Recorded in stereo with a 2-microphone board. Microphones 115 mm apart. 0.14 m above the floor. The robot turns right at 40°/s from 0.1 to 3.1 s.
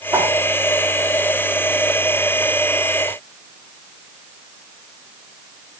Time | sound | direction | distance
0.1 | a whoosh | 20° right (ahead or behind) | 1.5 m